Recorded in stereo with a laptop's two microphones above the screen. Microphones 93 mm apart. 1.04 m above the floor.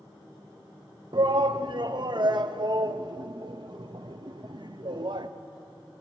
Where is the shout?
50° right (ahead or behind), 0.7 m.